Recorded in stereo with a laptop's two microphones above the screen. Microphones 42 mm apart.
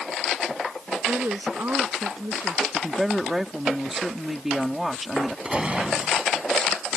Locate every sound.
1.1 s a woman speaking: 70° right (ahead or behind)
2.7 s a woman speaking: 10° right (ahead or behind)
5.5 s a gunshot: 25° right (ahead or behind)